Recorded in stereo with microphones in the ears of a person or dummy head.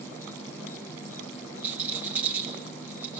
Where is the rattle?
10° right (ahead or behind), 5.5 m.